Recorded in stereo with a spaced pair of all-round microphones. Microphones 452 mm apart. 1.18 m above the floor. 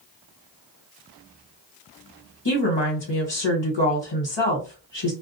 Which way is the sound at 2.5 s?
65° left (ahead or behind).